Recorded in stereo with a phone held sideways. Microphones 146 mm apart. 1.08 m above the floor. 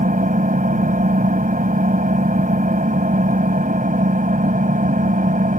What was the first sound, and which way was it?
An engine running, 65° right (ahead or behind).